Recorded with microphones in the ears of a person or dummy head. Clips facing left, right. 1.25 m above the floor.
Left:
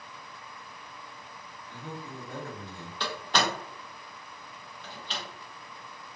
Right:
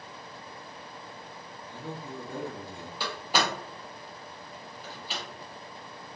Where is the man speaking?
10° right (ahead or behind), 0.6 m.